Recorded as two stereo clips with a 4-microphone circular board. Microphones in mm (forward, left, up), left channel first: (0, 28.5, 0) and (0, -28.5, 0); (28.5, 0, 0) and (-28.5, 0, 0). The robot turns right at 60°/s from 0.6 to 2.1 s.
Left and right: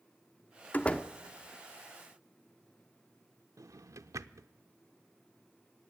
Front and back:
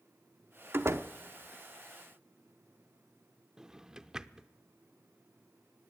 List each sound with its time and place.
0.7 s a door slam: 145° left, 1.1 m; by 1.1 s 165° left, 1.1 m
3.6 s a drawer: 105° right, 0.7 m